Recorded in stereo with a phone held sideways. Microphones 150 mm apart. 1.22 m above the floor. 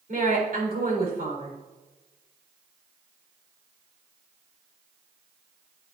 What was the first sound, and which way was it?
A woman speaking, 75° right (ahead or behind).